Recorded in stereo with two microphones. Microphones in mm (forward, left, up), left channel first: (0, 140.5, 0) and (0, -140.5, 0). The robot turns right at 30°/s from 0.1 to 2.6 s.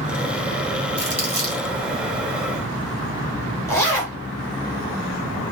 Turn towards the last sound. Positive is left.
turn(degrees=10)  # may be behind; listen again after turning